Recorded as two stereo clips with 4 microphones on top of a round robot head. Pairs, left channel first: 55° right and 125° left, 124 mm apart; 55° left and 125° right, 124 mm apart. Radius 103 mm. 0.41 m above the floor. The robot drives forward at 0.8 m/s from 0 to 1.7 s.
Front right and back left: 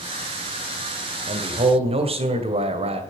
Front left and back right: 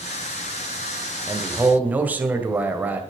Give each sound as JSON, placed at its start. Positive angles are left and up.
{"t": 1.3, "sound": "a man speaking", "azimuth_deg": 155, "distance_m": 2.0}